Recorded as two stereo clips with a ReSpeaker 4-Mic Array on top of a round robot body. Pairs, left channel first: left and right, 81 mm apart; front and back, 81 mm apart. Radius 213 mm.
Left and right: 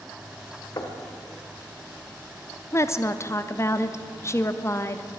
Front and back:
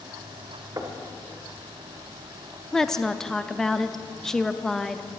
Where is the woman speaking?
80° left, 0.9 m.